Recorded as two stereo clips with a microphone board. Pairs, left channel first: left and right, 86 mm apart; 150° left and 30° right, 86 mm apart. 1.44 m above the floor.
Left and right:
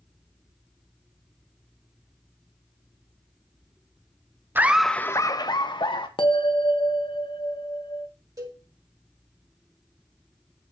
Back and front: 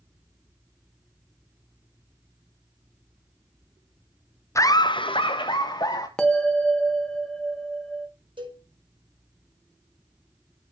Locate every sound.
4.5 s laughter: 155° right, 0.7 m; by 6.1 s 110° left, 1.4 m
6.2 s a bell: 70° left, 1.3 m
8.4 s a cowbell: 40° right, 5 m